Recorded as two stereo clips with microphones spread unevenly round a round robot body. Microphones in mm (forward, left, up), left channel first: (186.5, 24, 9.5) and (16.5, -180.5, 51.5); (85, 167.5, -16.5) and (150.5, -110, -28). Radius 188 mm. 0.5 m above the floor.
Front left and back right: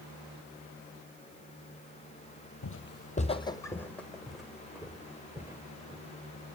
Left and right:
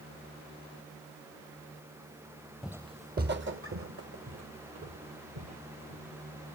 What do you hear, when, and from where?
2.6 s footsteps: 15° left, 1.0 m; by 6.1 s 55° right, 4 m